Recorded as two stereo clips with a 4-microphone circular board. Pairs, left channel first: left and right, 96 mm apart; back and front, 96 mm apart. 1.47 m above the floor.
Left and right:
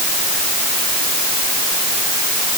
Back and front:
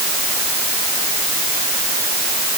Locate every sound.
Only background noise.